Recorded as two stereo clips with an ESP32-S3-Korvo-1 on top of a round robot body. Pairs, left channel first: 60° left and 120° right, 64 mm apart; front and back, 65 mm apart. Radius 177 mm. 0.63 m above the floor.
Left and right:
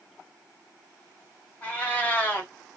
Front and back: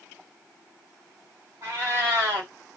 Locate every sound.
1.6 s a cat meowing: 130° left, 1.2 m